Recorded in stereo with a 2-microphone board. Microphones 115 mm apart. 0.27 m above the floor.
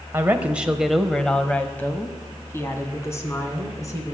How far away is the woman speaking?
About 0.9 m.